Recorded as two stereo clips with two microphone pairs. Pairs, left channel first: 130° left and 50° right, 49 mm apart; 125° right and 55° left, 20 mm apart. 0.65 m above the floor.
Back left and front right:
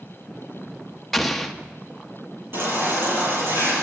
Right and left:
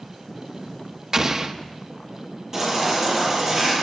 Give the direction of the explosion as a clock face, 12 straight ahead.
10 o'clock.